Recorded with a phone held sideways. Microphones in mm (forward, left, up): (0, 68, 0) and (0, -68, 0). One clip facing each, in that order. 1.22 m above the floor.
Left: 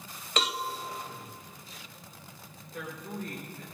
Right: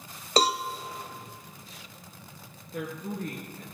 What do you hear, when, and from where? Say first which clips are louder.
0.4 s a cowbell: right 7 dB; 40° right (ahead or behind), 0.5 m
2.7 s a woman speaking: right 4 dB; 65° right (ahead or behind), 1.3 m